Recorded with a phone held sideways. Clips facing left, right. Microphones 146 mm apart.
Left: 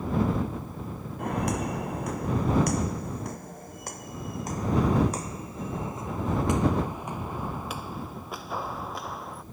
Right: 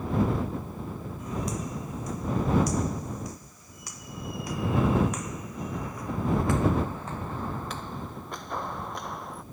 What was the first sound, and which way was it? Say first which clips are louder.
Footsteps: left 5 dB; 65° left (ahead or behind).